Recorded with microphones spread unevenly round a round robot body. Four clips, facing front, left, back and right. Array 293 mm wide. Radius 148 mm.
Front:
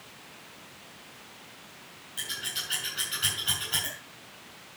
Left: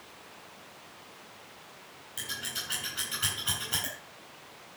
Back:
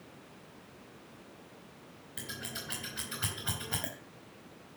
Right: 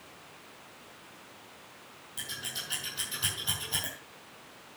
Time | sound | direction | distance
2.2 | scissors | straight behind | 4 m